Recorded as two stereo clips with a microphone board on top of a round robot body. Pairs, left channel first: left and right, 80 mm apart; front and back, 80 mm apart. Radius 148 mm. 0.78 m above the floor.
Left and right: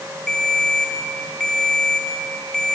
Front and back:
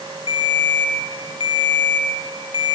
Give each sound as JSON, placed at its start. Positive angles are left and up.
{"t": 0.3, "sound": "a ringtone", "azimuth_deg": 5, "distance_m": 3.5}